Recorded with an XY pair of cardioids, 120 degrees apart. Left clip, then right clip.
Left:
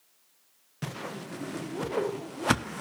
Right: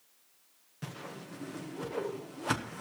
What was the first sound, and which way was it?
A whoosh, 40° left.